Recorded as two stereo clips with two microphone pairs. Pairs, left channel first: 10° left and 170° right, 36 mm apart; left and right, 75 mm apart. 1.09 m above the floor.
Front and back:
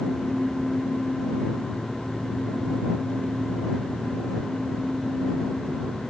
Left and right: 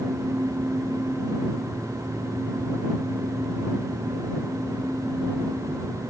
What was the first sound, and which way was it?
Only background noise.